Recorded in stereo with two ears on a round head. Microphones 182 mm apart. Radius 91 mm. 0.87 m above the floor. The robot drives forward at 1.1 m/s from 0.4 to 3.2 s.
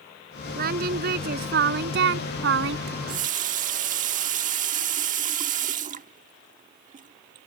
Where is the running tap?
55° right (ahead or behind); by 7.5 s 40° right (ahead or behind).